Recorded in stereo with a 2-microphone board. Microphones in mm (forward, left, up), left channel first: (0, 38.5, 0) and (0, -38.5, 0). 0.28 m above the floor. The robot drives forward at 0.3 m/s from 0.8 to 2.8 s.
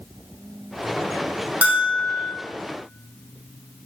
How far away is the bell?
About 1.1 m.